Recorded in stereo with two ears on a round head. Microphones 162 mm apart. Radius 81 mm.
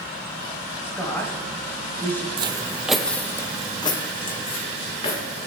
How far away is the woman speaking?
About 4.5 m.